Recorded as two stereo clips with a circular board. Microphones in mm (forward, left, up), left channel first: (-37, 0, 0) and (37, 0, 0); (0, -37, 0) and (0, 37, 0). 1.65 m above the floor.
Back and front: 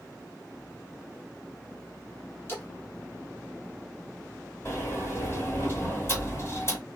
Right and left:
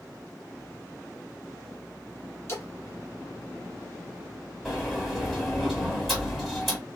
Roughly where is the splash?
Behind right.